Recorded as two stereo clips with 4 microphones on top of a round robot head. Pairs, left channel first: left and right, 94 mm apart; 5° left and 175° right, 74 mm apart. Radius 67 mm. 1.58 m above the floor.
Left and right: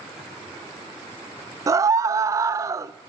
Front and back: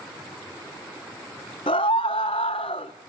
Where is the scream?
35° right, 1.0 m.